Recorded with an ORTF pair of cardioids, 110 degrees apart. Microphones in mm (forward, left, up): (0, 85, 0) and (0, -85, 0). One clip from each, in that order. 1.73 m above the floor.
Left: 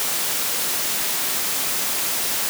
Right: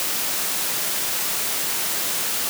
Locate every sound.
Only background noise.